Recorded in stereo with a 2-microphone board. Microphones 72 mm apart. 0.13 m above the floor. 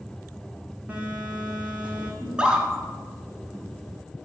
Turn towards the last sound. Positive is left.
turn(degrees=-15)  # may be behind; listen again after turning